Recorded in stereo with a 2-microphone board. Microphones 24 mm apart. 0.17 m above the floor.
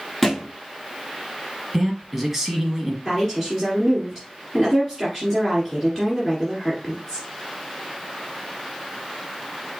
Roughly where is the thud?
Centre.